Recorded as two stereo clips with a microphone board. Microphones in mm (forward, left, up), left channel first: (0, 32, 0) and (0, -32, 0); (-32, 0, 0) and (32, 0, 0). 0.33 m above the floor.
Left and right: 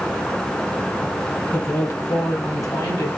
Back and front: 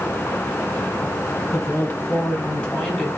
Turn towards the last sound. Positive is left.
turn(degrees=100)